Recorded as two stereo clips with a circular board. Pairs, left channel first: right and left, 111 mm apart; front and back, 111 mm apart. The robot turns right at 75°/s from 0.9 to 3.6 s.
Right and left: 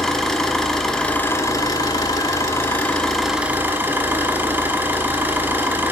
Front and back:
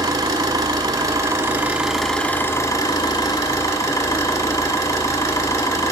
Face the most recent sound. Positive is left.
turn(degrees=30)